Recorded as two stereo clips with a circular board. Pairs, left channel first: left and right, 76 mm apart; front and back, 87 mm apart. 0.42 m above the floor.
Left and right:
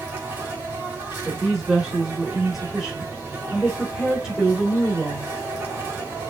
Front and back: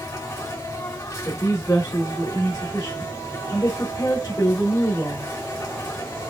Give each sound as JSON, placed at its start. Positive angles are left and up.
{"t": 0.0, "sound": "an insect", "azimuth_deg": -35, "distance_m": 2.0}
{"t": 1.2, "sound": "a woman speaking", "azimuth_deg": -10, "distance_m": 1.4}